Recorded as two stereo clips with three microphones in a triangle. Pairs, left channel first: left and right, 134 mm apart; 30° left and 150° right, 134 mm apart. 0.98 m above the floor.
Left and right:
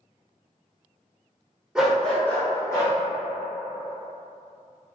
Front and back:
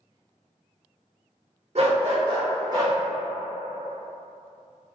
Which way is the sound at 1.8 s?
175° right.